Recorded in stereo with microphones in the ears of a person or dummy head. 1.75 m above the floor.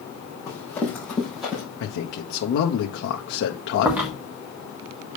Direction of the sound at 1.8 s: 55° left (ahead or behind).